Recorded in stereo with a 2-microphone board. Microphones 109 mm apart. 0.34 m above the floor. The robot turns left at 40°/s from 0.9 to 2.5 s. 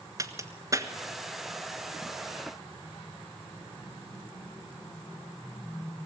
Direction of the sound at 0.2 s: 30° right (ahead or behind).